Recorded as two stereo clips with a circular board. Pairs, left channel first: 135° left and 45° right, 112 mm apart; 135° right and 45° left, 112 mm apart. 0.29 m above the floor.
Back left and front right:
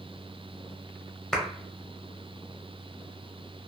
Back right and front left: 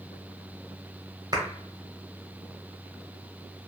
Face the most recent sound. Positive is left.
turn(degrees=50)